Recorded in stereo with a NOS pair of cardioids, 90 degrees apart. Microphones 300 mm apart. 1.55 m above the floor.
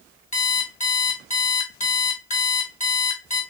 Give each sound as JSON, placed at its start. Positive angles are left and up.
{"t": 0.3, "sound": "an alarm clock", "azimuth_deg": 25, "distance_m": 2.0}